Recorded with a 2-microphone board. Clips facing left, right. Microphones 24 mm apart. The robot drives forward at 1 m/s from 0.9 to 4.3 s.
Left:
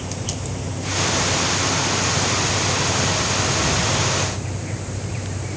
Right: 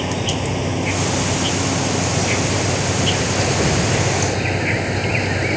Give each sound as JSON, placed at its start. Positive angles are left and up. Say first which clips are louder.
{"t": 0.0, "sound": "an insect", "louder": "right 8 dB", "side_deg": -45}